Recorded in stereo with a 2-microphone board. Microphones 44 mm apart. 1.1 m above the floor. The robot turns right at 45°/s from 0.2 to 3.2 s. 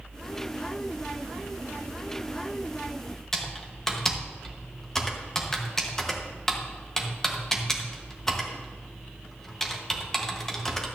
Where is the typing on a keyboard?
10° left (ahead or behind), 1.2 m.